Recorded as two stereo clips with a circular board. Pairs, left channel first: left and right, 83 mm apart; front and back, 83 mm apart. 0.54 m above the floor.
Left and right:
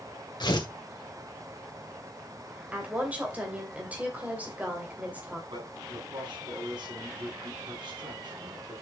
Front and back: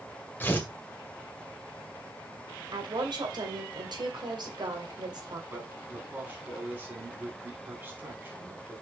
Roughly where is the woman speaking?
Behind.